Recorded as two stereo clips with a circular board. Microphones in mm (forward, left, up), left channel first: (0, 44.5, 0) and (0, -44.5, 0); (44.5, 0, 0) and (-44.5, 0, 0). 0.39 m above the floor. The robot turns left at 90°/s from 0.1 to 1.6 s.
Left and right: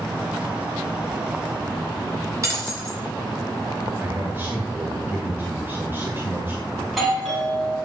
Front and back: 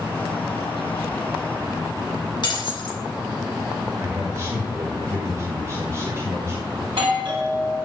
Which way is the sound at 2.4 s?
35° right.